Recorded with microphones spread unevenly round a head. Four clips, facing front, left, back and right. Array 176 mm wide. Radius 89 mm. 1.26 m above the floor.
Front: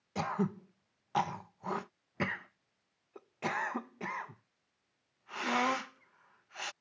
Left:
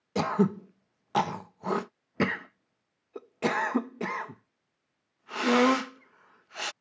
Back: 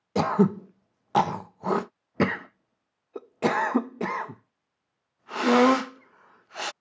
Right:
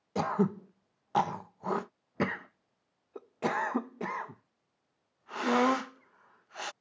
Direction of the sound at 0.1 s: 150° left.